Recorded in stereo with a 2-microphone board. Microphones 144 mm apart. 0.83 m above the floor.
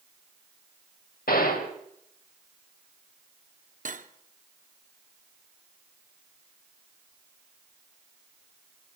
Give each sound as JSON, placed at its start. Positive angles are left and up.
{"t": 1.3, "sound": "a gunshot", "side_deg": 80, "distance_m": 2.5}
{"t": 3.9, "sound": "cutlery clinking", "side_deg": -60, "distance_m": 1.0}